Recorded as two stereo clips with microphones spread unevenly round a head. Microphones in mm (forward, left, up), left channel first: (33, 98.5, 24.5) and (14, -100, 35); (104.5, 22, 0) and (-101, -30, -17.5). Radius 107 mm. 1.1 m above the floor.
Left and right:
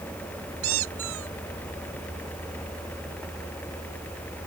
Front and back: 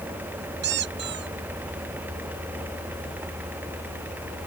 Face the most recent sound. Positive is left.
turn(degrees=-125)